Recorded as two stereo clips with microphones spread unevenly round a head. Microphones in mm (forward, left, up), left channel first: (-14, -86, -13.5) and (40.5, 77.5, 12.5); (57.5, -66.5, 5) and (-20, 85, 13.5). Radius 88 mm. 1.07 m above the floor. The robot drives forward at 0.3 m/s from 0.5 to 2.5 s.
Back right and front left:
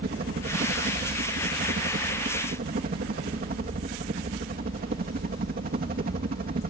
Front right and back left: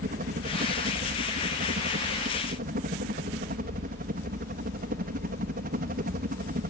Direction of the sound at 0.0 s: 100° left.